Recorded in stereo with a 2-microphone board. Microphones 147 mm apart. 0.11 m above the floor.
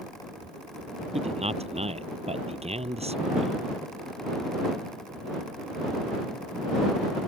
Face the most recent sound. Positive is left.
turn(degrees=-45)  # may be behind; listen again after turning